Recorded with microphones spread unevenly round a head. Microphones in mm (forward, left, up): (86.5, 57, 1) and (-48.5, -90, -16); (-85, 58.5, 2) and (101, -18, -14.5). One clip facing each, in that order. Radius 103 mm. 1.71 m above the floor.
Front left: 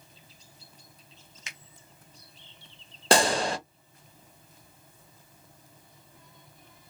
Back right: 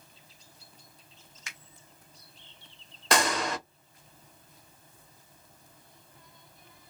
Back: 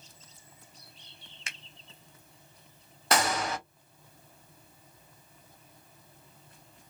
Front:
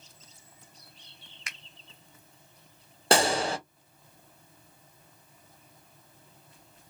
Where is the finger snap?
110° left, 0.6 m.